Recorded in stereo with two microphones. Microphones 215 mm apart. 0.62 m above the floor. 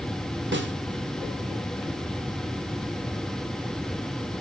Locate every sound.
0.5 s a snare drum: 65° right (ahead or behind), 1.5 m